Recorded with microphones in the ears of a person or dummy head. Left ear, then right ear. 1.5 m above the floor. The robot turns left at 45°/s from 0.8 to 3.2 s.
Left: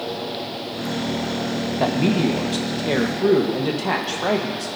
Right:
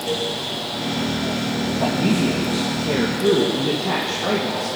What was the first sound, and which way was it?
A man speaking, 100° left.